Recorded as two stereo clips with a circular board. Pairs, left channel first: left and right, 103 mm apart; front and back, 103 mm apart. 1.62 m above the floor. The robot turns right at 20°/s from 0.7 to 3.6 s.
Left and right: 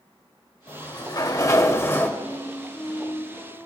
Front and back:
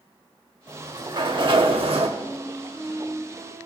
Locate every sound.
0.7 s a sliding door: 130° left, 0.9 m; by 2.1 s 160° left, 0.9 m
2.2 s a flute: 110° left, 1.9 m; by 3.7 s 135° left, 1.9 m